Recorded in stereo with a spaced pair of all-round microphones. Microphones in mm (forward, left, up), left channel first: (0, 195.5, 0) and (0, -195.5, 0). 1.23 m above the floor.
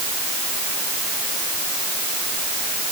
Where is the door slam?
No door slam in this recording.